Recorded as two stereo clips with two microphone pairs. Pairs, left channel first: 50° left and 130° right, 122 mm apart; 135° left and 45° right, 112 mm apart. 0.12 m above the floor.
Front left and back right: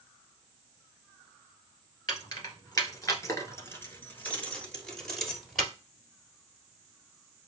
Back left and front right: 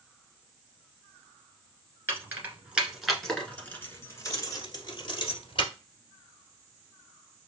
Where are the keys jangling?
10° left, 1.5 m; by 5.7 s 140° left, 1.8 m.